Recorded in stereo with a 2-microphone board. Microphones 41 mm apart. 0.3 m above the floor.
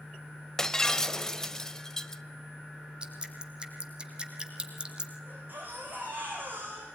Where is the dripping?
20° right (ahead or behind), 2.5 m.